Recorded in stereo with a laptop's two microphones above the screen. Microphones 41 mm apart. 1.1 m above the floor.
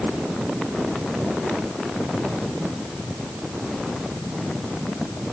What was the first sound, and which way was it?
Only background noise.